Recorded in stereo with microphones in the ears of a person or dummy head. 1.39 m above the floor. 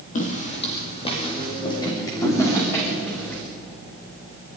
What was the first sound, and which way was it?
Footsteps, 45° left (ahead or behind).